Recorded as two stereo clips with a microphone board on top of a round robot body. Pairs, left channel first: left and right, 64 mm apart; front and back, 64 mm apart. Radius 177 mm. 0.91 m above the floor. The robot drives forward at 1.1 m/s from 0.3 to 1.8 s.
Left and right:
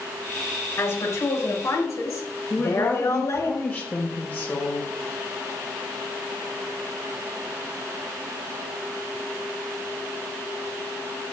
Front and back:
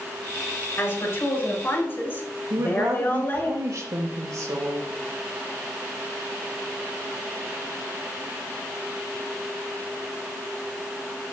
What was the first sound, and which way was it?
A woman speaking, 45° left.